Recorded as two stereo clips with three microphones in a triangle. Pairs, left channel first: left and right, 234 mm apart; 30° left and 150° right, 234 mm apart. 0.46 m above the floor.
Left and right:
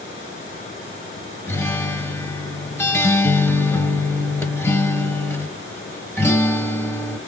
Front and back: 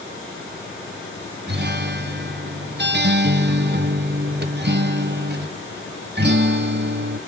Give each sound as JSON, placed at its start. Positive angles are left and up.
{"t": 1.5, "sound": "a guitar", "azimuth_deg": 170, "distance_m": 1.1}